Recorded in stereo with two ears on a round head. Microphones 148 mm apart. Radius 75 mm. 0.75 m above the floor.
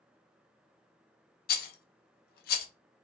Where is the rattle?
60° left (ahead or behind), 0.5 m.